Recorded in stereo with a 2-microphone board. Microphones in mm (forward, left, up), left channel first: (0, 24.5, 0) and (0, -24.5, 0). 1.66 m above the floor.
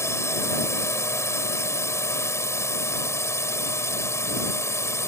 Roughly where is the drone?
Left.